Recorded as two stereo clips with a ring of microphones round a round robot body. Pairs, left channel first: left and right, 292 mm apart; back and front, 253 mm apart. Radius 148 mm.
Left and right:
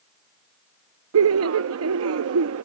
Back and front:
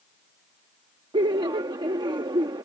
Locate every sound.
1.1 s laughter: 70° right